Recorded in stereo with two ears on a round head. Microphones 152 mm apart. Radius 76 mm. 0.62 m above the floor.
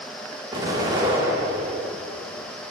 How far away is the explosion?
About 1.9 m.